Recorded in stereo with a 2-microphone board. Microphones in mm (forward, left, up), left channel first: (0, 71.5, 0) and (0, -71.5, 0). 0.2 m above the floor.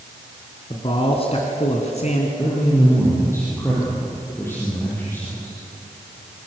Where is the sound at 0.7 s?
35° left (ahead or behind), 2.5 m; by 2.3 s 55° left (ahead or behind), 2.5 m.